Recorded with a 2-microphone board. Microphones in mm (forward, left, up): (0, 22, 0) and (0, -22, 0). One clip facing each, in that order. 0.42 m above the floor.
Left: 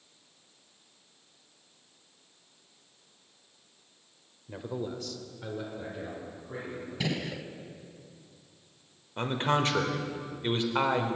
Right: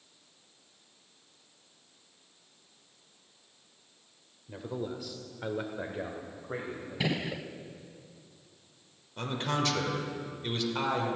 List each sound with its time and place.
4.5 s a man speaking: 15° left (ahead or behind), 1.2 m; by 7.3 s 60° right (ahead or behind), 2.5 m
7.0 s a gunshot: 15° right (ahead or behind), 0.5 m
9.2 s a man speaking: 30° left (ahead or behind), 1.3 m